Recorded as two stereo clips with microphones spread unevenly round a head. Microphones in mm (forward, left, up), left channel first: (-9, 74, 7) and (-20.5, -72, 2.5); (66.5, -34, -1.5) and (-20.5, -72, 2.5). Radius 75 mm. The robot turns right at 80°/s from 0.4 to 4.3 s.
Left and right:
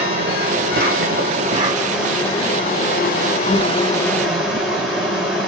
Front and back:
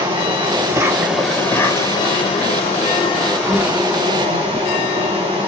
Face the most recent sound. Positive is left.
turn(degrees=175)